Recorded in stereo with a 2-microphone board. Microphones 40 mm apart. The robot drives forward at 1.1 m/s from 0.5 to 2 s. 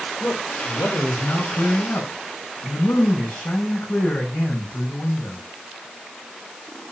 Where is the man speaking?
75° left (ahead or behind), 6 m; by 5.4 s 70° left (ahead or behind), 6 m.